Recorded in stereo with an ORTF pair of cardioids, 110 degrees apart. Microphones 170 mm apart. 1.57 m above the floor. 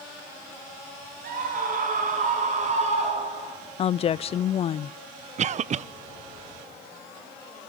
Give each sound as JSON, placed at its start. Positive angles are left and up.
{"t": 1.2, "sound": "a scream", "azimuth_deg": -55, "distance_m": 9.5}
{"t": 3.8, "sound": "a woman speaking", "azimuth_deg": 40, "distance_m": 0.6}
{"t": 5.4, "sound": "a cough", "azimuth_deg": -45, "distance_m": 0.8}